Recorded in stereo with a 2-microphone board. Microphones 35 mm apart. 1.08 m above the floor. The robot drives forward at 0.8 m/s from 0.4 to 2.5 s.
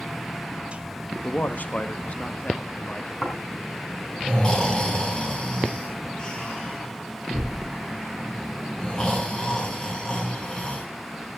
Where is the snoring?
20° left (ahead or behind), 7 m.